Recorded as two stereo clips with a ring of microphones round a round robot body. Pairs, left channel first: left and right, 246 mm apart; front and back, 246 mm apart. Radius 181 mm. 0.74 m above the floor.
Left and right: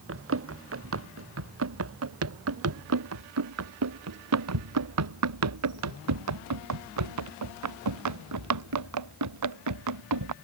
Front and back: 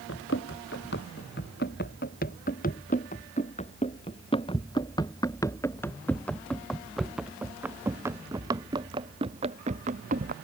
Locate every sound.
0.1 s running footsteps: 60° right; by 10.3 s 110° right